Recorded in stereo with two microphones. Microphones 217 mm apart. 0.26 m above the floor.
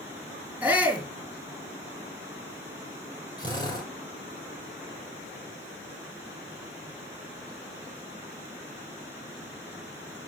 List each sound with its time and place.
0.6 s a shout: 10° right (ahead or behind), 3.5 m
3.4 s a drill: 20° left (ahead or behind), 8.5 m